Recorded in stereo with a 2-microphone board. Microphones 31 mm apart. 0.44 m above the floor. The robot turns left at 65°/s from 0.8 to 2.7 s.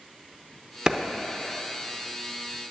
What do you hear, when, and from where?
0.9 s a clap: 25° right (ahead or behind), 0.7 m; by 1.0 s 20° right (ahead or behind), 0.7 m